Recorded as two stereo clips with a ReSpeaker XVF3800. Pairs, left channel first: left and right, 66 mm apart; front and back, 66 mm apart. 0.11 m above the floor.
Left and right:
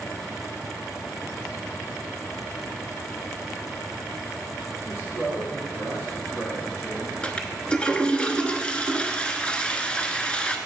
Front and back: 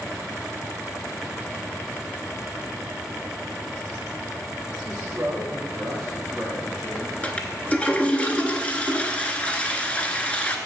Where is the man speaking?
110° left, 2.5 m; by 7.1 s 55° left, 2.5 m.